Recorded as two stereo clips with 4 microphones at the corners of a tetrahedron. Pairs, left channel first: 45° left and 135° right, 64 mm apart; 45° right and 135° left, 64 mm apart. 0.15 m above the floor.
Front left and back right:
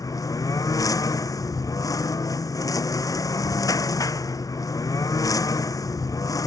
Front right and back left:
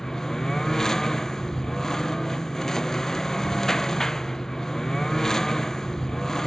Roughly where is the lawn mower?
Ahead left.